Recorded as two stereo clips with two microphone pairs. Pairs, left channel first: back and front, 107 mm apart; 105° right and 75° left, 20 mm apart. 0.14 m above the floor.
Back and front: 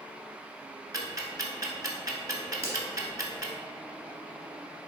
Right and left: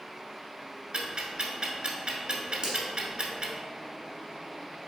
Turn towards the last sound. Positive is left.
turn(degrees=45)